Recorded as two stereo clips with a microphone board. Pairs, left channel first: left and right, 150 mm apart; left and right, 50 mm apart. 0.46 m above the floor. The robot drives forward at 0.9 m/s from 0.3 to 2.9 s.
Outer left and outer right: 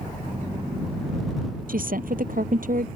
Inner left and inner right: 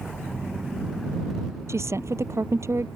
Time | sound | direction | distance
1.7 | a woman speaking | 65° right (ahead or behind) | ?